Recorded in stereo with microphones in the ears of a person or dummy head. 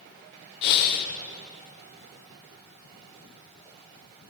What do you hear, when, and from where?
0.6 s breathing: 55° left (ahead or behind), 0.9 m